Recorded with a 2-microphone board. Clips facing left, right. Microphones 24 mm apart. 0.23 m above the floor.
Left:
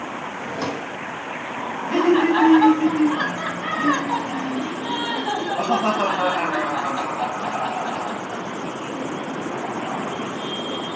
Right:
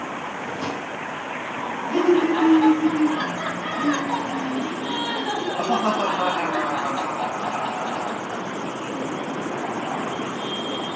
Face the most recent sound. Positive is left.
turn(degrees=40)  # may be behind; listen again after turning